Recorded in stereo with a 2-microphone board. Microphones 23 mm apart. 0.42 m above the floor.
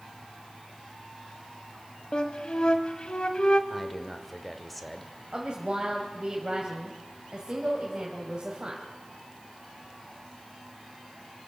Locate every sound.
2.1 s a flute: 45° left (ahead or behind), 1.3 m
3.7 s a man speaking: centre (ahead or behind), 1.6 m
5.3 s a woman speaking: 35° right (ahead or behind), 2.5 m